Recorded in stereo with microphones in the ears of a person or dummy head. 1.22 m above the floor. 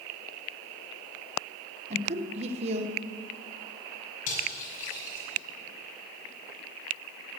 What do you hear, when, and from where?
1.9 s a woman speaking: 35° right (ahead or behind), 1.2 m
4.3 s cutlery clinking: 45° left (ahead or behind), 5 m